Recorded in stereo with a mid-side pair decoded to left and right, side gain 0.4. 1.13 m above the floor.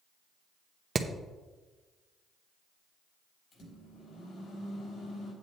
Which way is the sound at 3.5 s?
65° left.